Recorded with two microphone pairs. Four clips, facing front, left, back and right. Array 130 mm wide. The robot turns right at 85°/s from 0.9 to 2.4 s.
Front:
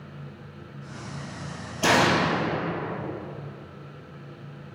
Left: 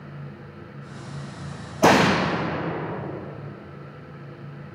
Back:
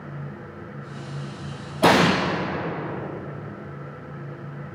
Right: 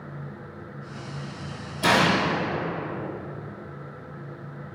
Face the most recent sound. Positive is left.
turn(degrees=170)